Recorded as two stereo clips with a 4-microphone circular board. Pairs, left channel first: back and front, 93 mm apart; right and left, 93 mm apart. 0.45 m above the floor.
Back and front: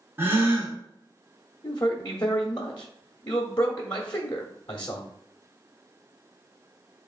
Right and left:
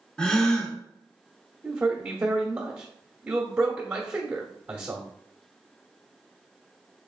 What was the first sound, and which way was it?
A gasp, 20° right.